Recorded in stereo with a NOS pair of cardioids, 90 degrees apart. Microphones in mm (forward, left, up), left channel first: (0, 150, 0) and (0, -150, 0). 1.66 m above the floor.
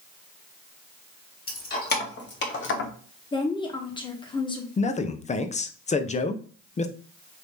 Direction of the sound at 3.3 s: 15° left.